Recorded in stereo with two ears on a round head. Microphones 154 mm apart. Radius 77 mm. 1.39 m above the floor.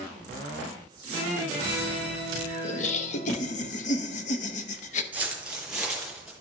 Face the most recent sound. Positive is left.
turn(degrees=0)  # may be behind; listen again after turning